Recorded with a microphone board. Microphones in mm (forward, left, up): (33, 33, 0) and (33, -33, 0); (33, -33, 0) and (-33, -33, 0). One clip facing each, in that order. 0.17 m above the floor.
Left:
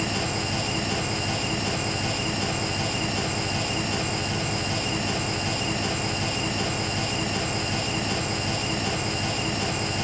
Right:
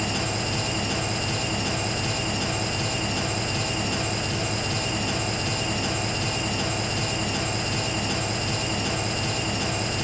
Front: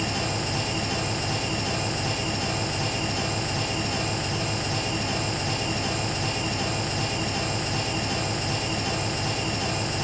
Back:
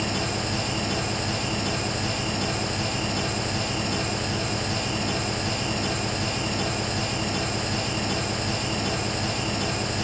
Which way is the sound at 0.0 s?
Straight behind.